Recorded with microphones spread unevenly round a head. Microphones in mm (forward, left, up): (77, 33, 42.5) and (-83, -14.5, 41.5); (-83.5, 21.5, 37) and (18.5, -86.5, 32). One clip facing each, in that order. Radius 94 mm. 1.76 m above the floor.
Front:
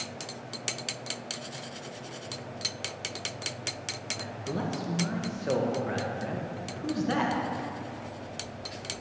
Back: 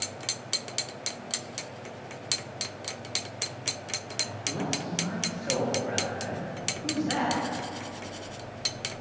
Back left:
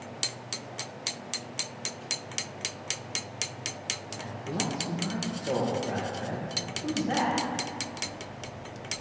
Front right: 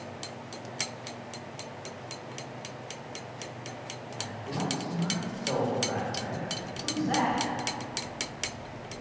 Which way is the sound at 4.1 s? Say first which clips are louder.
Front 3 dB, back left 2 dB; 60° left.